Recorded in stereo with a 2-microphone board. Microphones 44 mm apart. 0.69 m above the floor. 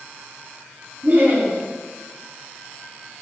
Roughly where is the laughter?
Right.